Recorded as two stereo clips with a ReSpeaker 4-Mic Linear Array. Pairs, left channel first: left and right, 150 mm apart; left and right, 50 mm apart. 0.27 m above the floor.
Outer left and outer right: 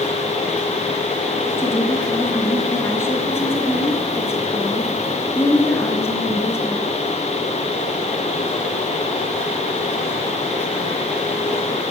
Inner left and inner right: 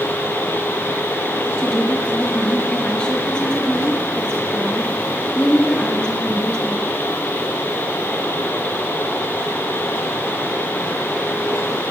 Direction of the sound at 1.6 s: 15° left (ahead or behind).